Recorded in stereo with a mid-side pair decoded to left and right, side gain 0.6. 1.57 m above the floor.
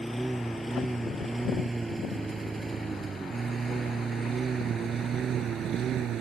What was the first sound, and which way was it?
A lawn mower, 10° right.